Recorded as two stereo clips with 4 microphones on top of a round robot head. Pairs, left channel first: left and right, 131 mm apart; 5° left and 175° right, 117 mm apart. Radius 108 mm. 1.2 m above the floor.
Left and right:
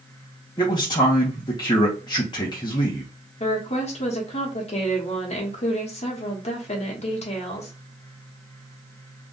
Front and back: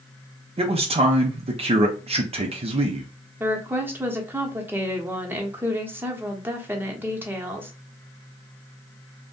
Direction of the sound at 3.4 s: 115° left.